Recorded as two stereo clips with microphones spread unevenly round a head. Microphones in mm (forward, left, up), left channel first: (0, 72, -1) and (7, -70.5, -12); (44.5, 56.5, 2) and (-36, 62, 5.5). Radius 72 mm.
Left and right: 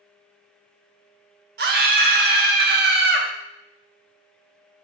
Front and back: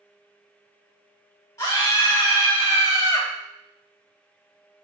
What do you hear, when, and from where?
1.6 s a scream: 70° right, 0.8 m